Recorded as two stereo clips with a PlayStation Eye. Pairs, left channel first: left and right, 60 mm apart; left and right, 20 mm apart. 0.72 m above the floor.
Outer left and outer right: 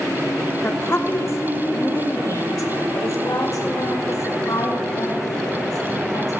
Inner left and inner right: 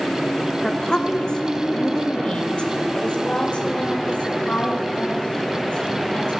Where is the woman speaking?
40° left (ahead or behind), 1.4 m; by 6.3 s 80° left, 4 m.